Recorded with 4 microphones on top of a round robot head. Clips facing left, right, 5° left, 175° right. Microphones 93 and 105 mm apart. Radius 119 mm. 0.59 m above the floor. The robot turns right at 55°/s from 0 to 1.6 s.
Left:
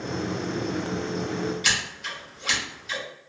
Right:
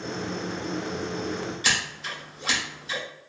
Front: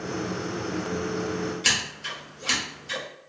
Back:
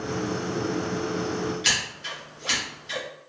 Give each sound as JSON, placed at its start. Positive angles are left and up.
{"t": 1.6, "sound": "scissors", "azimuth_deg": -40, "distance_m": 1.6}